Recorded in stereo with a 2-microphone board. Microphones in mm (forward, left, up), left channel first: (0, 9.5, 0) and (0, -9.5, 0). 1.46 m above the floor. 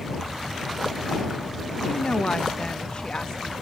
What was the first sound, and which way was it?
A woman speaking, 65° left (ahead or behind).